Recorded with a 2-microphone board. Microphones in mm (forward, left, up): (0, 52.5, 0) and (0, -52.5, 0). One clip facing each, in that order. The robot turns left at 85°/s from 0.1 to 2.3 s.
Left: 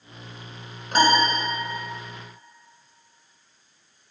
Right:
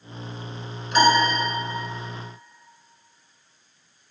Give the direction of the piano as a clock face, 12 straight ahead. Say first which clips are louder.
Right 1 dB; 9 o'clock.